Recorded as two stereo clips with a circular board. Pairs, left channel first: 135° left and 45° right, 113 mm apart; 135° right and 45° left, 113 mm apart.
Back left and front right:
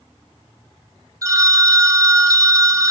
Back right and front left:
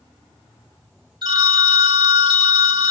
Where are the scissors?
No scissors in this recording.